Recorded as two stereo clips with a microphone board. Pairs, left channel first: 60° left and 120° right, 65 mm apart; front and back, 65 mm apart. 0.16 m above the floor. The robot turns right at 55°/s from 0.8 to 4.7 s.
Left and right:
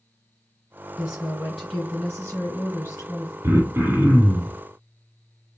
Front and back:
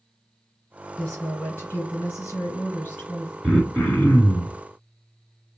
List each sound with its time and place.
1.0 s a woman speaking: 75° right, 2 m; by 3.3 s 55° left, 2 m
3.4 s throat clearing: 95° right, 1.7 m; by 4.6 s 30° right, 1.7 m